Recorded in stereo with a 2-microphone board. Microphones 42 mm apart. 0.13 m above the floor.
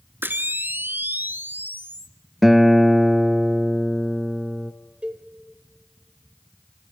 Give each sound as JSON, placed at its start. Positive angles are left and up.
{"t": 0.2, "sound": "a camera shutter", "side_deg": -50, "distance_m": 1.3}
{"t": 2.4, "sound": "a guitar", "side_deg": -5, "distance_m": 1.3}
{"t": 5.0, "sound": "a cowbell", "side_deg": -25, "distance_m": 2.0}